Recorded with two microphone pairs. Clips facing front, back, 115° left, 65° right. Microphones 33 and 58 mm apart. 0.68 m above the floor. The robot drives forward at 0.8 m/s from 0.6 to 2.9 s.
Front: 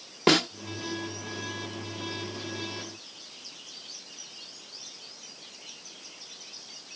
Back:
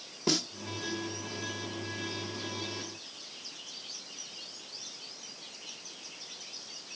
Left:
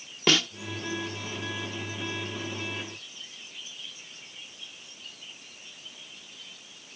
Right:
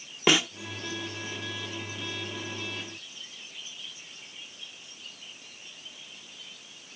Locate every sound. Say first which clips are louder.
0.3 s a snare drum: front 9 dB, right 1 dB; 5° left